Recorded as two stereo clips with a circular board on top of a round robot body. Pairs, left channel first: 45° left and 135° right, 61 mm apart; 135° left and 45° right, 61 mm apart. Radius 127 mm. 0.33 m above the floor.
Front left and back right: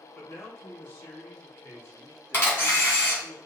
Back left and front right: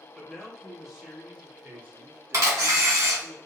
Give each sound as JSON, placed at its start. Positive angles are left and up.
{"t": 0.1, "sound": "a man speaking", "azimuth_deg": 55, "distance_m": 1.6}
{"t": 2.3, "sound": "a camera shutter", "azimuth_deg": -10, "distance_m": 1.9}